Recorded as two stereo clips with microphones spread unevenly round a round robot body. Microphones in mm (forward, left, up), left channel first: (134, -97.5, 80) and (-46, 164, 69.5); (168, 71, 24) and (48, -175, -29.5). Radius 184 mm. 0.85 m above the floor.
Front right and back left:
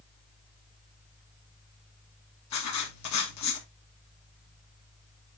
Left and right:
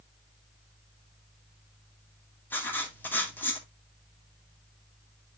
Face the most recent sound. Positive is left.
turn(degrees=-25)